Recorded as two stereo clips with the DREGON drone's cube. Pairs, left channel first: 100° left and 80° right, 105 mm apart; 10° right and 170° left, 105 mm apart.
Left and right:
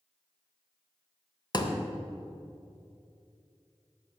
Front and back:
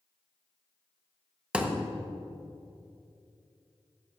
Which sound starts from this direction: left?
A thud, at 1.5 s.